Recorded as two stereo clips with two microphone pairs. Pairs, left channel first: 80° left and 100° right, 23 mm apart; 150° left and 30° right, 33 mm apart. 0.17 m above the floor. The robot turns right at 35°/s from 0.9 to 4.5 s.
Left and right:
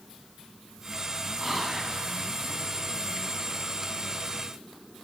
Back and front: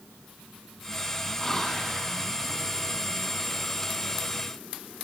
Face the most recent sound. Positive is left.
turn(degrees=-60)